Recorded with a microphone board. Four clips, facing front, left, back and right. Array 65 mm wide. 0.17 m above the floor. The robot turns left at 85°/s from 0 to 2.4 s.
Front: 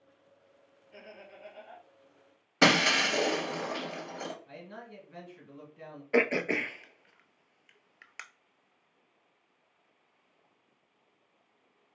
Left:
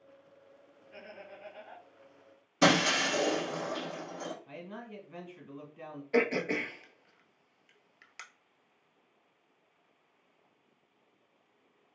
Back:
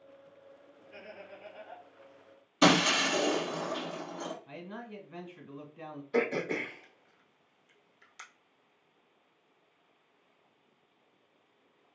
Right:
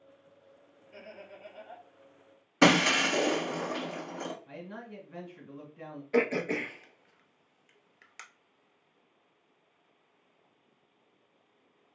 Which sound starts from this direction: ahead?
Throat clearing, at 6.1 s.